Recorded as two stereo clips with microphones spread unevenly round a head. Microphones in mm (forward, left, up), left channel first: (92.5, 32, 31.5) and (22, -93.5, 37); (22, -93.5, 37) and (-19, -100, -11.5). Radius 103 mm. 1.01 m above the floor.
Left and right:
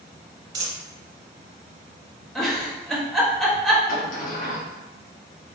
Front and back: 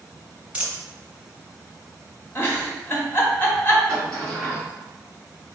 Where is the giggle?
25° right, 1.0 m.